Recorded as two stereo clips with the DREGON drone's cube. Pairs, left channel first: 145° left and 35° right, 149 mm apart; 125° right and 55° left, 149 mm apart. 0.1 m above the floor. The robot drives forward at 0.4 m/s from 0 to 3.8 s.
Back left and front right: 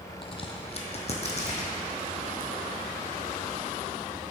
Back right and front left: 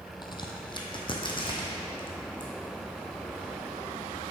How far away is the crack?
About 0.7 m.